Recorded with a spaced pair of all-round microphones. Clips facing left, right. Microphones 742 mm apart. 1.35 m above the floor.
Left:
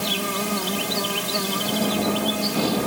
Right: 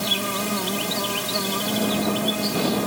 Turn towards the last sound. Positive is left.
turn(degrees=0)  # may be behind; listen again after turning